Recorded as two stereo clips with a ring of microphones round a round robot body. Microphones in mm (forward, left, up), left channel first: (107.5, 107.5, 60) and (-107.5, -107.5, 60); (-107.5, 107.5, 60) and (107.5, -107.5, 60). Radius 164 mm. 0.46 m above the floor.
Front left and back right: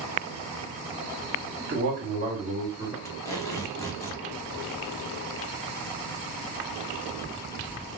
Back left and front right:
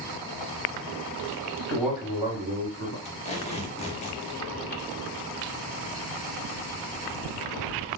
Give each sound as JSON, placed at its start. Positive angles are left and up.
{"t": 1.6, "sound": "a man speaking", "azimuth_deg": -155, "distance_m": 1.6}
{"t": 3.0, "sound": "tape being pulled", "azimuth_deg": 110, "distance_m": 0.9}